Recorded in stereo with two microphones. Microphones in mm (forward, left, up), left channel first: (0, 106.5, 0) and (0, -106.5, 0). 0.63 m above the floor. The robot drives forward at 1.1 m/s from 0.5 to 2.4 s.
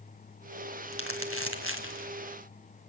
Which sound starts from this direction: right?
Crumpling, at 0.9 s.